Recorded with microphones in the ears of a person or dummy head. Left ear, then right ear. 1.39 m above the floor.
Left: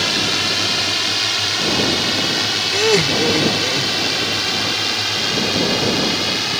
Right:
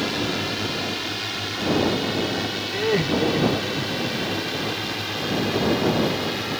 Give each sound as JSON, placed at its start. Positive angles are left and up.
{"t": 0.0, "sound": "a drone", "side_deg": 35}
{"t": 2.7, "sound": "laughter", "side_deg": 70}